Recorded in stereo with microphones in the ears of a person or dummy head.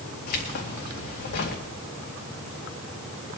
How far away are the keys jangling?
About 2 m.